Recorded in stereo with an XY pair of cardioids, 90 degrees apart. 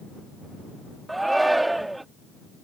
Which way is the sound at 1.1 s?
15° right.